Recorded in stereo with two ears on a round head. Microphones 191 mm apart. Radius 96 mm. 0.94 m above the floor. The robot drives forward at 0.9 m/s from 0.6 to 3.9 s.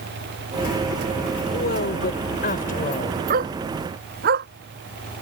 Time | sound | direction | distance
1.5 | a woman speaking | 55° left (ahead or behind) | ?
3.3 | a dog barking | 40° right (ahead or behind) | ?